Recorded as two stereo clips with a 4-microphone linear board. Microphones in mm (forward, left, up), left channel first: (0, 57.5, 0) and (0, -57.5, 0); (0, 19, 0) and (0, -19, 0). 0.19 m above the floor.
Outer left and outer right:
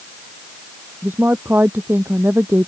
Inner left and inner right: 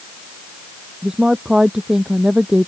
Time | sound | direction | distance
1.0 | a woman speaking | 20° right (ahead or behind) | ?